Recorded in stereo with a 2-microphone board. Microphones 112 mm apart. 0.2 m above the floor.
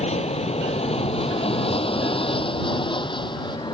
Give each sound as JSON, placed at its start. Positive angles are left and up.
{"t": 0.0, "sound": "an aircraft", "side_deg": 70}